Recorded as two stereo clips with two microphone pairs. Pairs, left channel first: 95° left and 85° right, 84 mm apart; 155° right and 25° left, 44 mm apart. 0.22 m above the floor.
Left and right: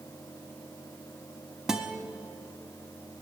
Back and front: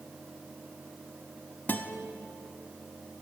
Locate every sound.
1.7 s a guitar: 165° right, 0.7 m